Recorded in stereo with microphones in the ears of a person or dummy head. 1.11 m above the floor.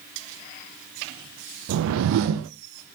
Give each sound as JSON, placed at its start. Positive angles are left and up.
{"t": 1.7, "sound": "a whoosh", "side_deg": -80, "distance_m": 0.5}